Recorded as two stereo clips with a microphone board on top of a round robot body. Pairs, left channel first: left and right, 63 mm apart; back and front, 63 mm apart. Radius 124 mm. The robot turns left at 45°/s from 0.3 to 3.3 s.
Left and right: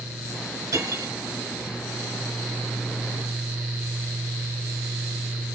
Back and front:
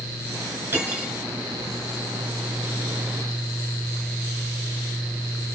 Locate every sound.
0.7 s cutlery clinking: 55° right, 5.5 m; by 1.1 s 75° right, 5.5 m